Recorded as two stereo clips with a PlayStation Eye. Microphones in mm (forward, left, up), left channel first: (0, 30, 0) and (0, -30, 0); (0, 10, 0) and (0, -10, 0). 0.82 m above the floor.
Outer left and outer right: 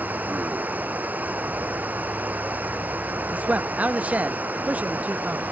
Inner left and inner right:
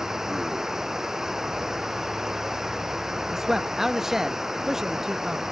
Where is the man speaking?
25° right (ahead or behind).